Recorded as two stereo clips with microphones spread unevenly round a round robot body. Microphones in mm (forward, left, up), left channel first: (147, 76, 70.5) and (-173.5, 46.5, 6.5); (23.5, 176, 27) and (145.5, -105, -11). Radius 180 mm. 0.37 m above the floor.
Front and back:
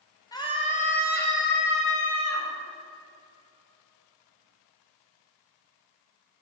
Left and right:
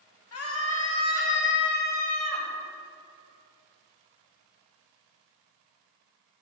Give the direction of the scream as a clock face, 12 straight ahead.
9 o'clock.